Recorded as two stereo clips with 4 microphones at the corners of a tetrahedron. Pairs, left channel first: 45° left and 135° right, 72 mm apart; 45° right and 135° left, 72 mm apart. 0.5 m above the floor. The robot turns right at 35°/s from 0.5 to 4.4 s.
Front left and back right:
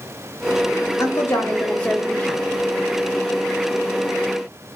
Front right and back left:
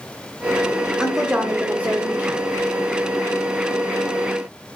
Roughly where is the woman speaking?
Ahead left.